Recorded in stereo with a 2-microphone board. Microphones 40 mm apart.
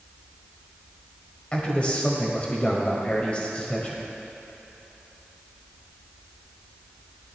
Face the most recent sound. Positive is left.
turn(degrees=30)  # may be behind; listen again after turning